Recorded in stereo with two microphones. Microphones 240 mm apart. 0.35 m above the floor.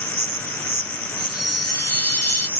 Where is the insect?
35° left (ahead or behind).